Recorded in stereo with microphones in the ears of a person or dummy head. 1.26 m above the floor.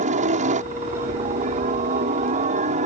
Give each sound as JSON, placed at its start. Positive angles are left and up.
{"t": 0.0, "sound": "a helicopter", "side_deg": -40}